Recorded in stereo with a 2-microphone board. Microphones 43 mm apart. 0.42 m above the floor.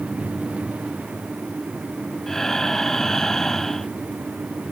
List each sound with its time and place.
2.3 s breathing: 10° left (ahead or behind)